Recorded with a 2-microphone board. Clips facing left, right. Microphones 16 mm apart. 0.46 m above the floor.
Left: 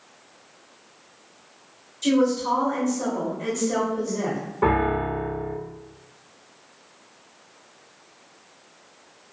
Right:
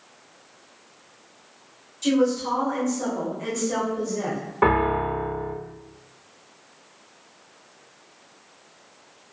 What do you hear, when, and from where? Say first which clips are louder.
2.0 s a woman speaking: left 1 dB; 5° right (ahead or behind), 1.4 m
4.6 s a piano: right 1 dB; 45° right (ahead or behind), 0.7 m